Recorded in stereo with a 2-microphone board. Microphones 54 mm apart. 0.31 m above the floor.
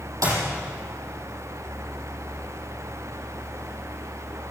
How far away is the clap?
About 8 m.